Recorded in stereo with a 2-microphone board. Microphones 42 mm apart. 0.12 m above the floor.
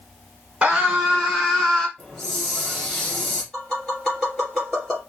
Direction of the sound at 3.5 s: 5° left (ahead or behind).